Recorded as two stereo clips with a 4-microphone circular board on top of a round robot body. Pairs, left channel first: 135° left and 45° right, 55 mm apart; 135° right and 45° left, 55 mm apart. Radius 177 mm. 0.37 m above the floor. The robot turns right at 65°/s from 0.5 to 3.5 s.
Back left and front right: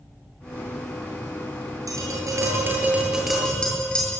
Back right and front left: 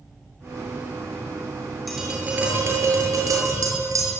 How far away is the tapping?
About 7.5 m.